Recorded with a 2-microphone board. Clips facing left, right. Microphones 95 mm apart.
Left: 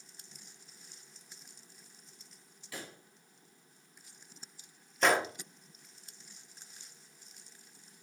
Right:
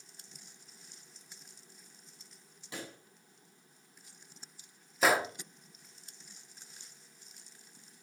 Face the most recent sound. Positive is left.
turn(degrees=-5)  # may be behind; listen again after turning